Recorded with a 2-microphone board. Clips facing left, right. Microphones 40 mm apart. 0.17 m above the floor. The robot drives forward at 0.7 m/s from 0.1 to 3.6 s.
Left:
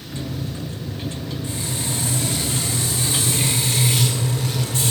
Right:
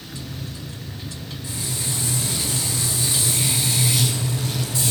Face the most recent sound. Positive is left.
turn(degrees=55)  # may be behind; listen again after turning